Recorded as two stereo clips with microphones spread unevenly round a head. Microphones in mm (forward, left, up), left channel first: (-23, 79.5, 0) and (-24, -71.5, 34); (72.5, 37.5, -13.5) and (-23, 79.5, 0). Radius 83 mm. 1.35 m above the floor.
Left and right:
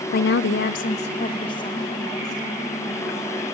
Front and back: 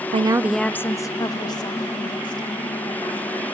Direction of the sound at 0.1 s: 120° left.